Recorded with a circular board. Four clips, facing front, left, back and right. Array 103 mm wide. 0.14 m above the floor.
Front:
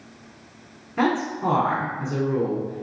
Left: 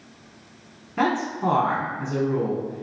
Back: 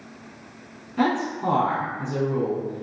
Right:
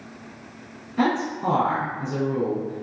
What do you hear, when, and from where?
1.0 s a man speaking: 55° left, 1.2 m